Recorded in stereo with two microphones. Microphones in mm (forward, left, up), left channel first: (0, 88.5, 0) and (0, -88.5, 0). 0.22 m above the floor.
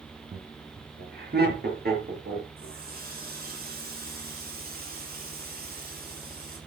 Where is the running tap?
55° right (ahead or behind), 4 m.